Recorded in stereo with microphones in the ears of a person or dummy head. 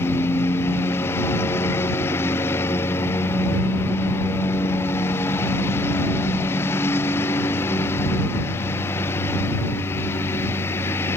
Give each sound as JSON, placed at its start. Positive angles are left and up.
{"t": 0.0, "sound": "a lawn mower", "side_deg": 15}